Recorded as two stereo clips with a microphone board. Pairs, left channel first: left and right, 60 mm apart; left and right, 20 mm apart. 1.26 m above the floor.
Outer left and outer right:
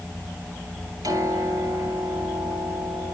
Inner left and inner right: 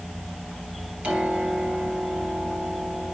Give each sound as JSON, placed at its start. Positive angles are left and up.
{"t": 1.0, "sound": "a piano", "side_deg": -80, "distance_m": 3.5}